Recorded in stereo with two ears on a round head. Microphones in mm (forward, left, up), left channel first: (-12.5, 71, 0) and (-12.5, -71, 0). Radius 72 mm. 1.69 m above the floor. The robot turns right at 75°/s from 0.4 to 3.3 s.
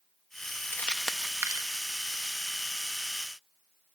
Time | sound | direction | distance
0.7 | crumpling | 15° left (ahead or behind) | 1.1 m